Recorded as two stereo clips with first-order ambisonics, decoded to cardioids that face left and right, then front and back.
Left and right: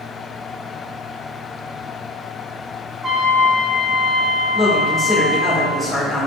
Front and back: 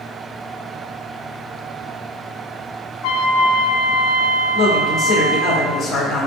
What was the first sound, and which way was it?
A trumpet, 15° right.